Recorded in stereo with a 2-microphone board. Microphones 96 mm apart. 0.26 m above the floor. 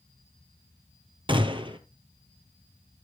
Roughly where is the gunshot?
Right.